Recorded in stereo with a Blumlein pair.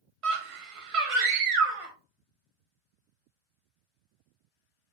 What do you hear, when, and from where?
0.2 s a scream: 45° right, 1.4 m